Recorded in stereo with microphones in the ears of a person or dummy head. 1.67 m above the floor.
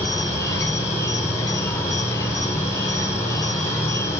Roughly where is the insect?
Centre.